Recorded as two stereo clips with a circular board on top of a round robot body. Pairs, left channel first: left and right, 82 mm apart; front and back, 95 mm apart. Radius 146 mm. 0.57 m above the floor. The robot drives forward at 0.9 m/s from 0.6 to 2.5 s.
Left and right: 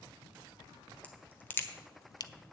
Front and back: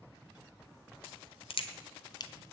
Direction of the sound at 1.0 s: 15° left.